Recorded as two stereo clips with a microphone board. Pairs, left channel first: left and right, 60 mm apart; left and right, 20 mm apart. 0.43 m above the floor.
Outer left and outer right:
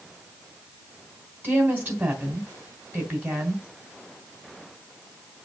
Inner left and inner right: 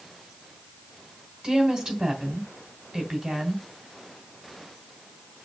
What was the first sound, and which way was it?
A woman speaking, 35° right (ahead or behind).